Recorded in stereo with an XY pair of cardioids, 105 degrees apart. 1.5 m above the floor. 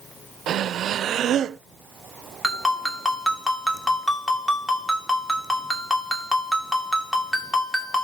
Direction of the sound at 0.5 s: 65° right.